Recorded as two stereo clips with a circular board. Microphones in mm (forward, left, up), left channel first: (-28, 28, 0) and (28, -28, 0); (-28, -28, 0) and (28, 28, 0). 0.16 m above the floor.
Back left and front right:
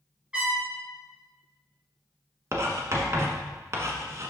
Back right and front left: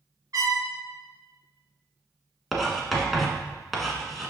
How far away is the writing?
About 1.3 m.